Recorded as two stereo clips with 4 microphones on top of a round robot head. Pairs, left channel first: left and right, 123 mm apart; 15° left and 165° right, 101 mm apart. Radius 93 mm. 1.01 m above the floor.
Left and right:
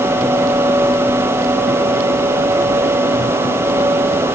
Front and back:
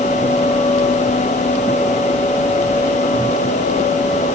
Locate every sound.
Only background noise.